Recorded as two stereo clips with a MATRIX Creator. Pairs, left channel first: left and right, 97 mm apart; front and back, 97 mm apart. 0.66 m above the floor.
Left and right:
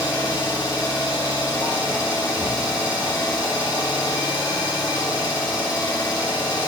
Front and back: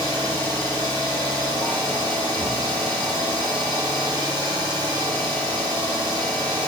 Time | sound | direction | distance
0.0 | an engine running | 135° left | 1.6 m